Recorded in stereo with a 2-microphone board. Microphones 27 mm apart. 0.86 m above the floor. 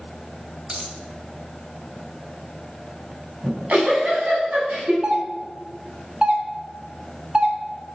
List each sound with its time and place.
0.7 s a dropped coin: 40° right (ahead or behind), 1.5 m
3.4 s a giggle: 65° right (ahead or behind), 5 m
5.0 s a doorbell: 35° right (ahead or behind), 1.3 m